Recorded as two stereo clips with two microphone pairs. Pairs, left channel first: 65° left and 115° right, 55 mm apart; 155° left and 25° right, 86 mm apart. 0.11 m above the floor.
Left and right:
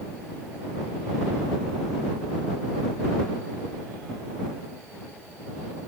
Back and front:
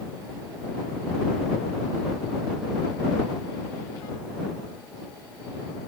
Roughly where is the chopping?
No chopping in this recording.